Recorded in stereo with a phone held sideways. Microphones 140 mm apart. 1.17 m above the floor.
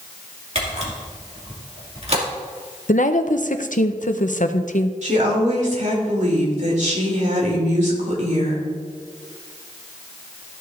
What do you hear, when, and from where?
0.6 s a camera shutter: 50° right (ahead or behind), 2.5 m
2.9 s a woman speaking: 65° left (ahead or behind), 0.7 m
5.0 s a woman speaking: 60° right (ahead or behind), 2.5 m